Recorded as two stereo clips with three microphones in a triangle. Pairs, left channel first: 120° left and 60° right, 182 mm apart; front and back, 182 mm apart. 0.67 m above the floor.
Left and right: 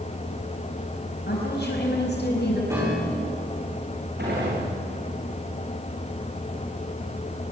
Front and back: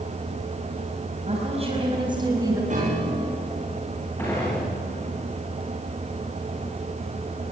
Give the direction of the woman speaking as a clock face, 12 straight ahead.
8 o'clock.